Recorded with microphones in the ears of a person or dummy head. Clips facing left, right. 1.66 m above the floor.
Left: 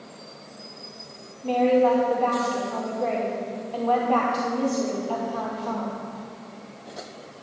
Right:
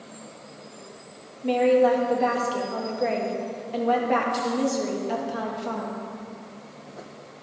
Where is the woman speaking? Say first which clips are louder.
Even; 25° right (ahead or behind), 2 m.